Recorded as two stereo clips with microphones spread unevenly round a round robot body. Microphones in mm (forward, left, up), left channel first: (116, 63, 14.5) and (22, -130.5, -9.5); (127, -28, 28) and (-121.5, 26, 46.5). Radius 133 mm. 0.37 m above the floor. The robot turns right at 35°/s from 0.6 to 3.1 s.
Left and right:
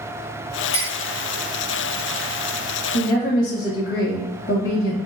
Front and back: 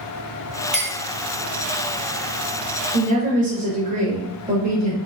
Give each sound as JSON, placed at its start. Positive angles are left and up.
{"t": 0.7, "sound": "a clink", "azimuth_deg": 80, "distance_m": 1.0}
{"t": 2.9, "sound": "a woman speaking", "azimuth_deg": 110, "distance_m": 1.1}